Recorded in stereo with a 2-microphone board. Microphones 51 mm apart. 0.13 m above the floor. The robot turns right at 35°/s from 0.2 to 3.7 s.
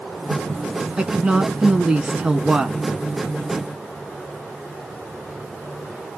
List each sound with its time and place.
1.0 s a woman speaking: 20° right (ahead or behind), 1.0 m; by 2.8 s 15° right (ahead or behind), 1.0 m